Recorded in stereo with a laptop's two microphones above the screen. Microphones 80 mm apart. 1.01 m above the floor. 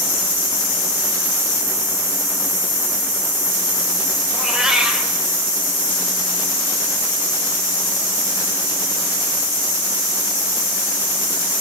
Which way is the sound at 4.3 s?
5° right (ahead or behind).